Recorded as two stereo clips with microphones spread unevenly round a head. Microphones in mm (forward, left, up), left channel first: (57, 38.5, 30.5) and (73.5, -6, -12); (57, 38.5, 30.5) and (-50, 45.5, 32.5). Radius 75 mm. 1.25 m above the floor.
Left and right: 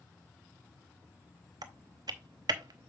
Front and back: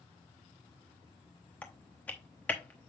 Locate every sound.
1.6 s typing on a keyboard: 80° right, 0.7 m